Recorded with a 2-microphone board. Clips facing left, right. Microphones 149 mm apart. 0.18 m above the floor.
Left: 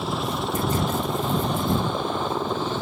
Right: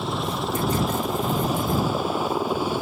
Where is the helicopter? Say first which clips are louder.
Even; centre (ahead or behind); by 2.8 s 10° right (ahead or behind).